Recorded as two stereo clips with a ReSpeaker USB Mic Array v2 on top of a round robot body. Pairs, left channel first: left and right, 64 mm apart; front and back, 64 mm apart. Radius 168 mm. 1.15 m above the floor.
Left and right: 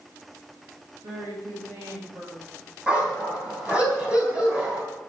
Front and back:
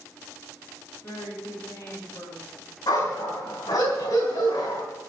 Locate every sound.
1.0 s a woman speaking: 50° right, 7.5 m
2.9 s a dog barking: 15° right, 3.5 m